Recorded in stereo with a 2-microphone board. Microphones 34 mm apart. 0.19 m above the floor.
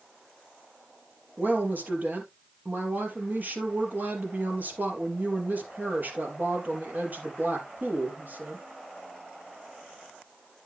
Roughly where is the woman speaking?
Right.